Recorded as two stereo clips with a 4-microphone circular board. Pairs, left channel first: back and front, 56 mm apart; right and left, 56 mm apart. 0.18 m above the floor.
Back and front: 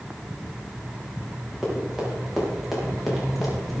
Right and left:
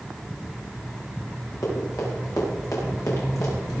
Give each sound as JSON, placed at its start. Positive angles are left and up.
{"t": 1.6, "sound": "running footsteps", "azimuth_deg": -85, "distance_m": 8.5}